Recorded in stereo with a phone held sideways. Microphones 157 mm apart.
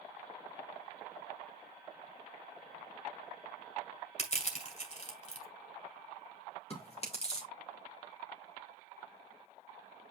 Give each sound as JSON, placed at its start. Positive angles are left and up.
{"t": 4.2, "sound": "crushing", "side_deg": 45, "distance_m": 2.0}
{"t": 6.7, "sound": "chewing", "side_deg": 40, "distance_m": 2.5}